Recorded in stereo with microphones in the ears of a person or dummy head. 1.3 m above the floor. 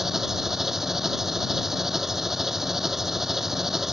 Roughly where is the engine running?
Centre.